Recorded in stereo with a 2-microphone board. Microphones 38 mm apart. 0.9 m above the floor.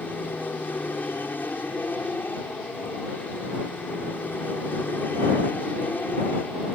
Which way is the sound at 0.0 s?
55° left (ahead or behind).